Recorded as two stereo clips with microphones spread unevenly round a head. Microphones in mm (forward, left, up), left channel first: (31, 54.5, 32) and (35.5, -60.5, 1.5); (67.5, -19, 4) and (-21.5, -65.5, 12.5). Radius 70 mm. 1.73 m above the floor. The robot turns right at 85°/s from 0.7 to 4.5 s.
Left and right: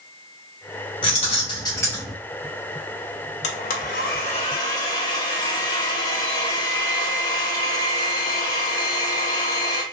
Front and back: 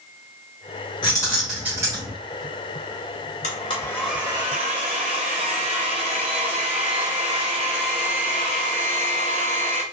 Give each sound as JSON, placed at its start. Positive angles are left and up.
{"t": 1.0, "sound": "keys jangling", "azimuth_deg": 80, "distance_m": 0.9}
{"t": 3.4, "sound": "a blender", "azimuth_deg": 65, "distance_m": 0.6}